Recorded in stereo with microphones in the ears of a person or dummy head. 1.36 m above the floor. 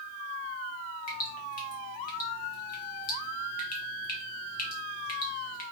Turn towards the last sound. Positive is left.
turn(degrees=50)  # may be behind; listen again after turning